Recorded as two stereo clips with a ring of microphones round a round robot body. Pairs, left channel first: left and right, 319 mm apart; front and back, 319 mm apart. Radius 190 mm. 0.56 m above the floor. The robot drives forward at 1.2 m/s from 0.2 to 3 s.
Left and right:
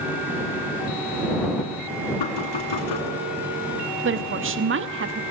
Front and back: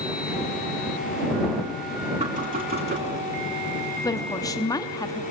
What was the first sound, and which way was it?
Knocking, 110° left.